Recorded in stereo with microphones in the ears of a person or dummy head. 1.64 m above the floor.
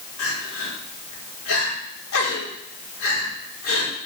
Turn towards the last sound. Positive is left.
turn(degrees=85)